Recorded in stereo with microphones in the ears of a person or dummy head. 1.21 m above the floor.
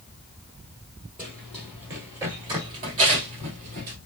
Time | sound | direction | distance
1.2 | running footsteps | 10° right (ahead or behind) | 1.7 m